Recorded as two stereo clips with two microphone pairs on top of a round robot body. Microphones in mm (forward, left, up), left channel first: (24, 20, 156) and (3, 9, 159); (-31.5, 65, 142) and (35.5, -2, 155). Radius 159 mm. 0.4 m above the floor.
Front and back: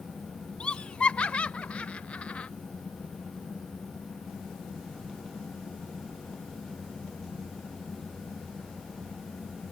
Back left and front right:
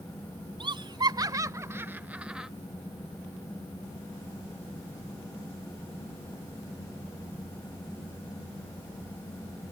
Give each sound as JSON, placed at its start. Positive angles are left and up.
{"t": 0.6, "sound": "laughter", "azimuth_deg": -10}